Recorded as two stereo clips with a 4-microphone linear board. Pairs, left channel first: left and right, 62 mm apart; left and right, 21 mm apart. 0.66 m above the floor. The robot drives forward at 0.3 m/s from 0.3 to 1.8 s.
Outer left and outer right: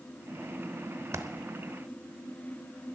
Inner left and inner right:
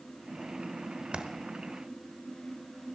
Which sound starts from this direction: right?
A dropped coin, at 1.1 s.